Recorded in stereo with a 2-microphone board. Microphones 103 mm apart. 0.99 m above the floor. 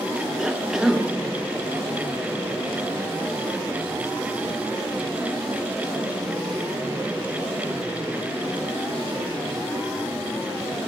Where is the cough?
5° right (ahead or behind), 0.6 m.